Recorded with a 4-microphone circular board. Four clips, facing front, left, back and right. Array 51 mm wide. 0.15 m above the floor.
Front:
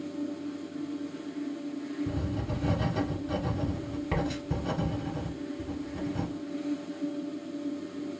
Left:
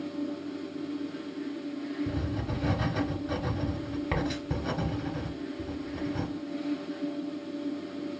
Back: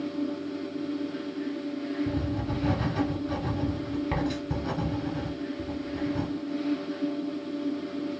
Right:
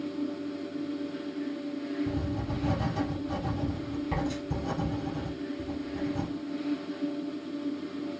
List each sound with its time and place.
2.1 s writing: 115° left, 0.9 m